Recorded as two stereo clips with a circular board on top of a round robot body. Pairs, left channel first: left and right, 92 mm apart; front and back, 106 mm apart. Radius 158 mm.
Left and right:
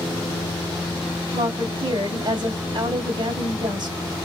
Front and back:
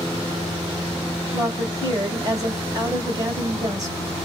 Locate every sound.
1.3 s a woman speaking: 125° right, 2.5 m